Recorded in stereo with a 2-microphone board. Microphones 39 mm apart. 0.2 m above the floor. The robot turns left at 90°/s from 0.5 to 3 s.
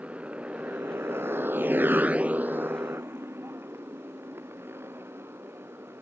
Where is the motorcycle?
35° right (ahead or behind); by 6.0 s 85° right.